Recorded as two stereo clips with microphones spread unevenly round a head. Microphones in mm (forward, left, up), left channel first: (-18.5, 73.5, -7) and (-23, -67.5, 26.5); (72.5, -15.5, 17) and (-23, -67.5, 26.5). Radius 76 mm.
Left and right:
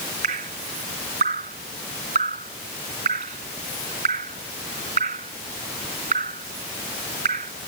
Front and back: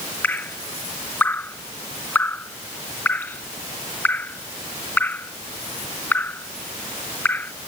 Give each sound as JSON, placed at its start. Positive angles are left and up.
{"t": 0.2, "sound": "dripping", "azimuth_deg": -45}